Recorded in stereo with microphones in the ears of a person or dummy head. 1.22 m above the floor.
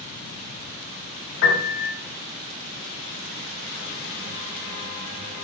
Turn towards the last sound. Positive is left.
turn(degrees=65)  # may be behind; listen again after turning